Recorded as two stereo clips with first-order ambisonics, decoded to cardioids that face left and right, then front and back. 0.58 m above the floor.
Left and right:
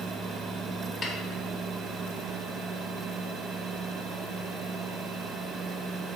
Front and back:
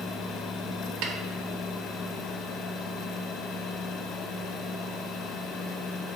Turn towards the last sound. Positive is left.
turn(degrees=165)